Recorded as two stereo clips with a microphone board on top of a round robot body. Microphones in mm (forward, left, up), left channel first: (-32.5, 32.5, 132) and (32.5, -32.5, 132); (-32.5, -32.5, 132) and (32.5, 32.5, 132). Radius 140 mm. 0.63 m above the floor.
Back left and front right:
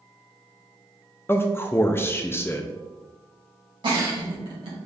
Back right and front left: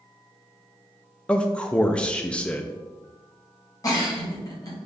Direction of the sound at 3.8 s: 80° right.